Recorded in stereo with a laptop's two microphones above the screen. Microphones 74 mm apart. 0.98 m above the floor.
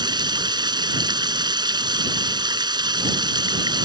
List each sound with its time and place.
0.0 s running water: 80° right